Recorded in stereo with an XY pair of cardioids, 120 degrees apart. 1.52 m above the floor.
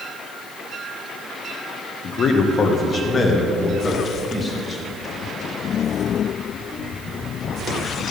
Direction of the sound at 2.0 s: 50° left.